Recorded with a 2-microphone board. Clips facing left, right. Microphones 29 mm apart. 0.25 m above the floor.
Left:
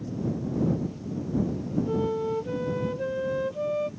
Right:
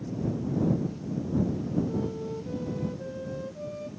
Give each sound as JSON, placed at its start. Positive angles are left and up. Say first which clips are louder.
{"t": 1.9, "sound": "a flute", "louder": "left 5 dB", "side_deg": 45}